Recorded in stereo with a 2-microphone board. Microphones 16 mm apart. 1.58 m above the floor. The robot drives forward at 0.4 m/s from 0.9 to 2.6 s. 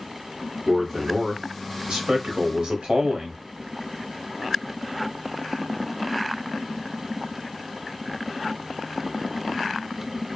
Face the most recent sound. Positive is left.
turn(degrees=-85)